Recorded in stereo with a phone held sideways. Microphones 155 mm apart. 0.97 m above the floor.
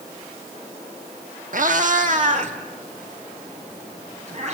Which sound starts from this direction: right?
A cat meowing, at 1.5 s.